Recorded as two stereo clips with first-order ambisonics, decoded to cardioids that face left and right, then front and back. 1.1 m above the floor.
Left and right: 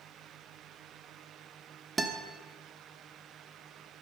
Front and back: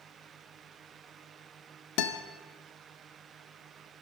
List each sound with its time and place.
2.0 s a guitar: 15° right, 1.1 m